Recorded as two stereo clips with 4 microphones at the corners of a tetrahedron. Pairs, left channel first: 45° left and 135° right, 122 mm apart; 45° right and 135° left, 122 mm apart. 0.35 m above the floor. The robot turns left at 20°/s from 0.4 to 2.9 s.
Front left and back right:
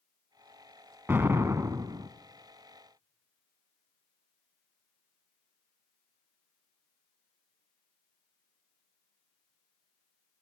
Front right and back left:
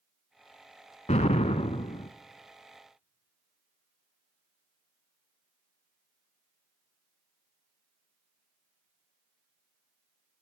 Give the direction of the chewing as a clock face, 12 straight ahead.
No chewing in this recording.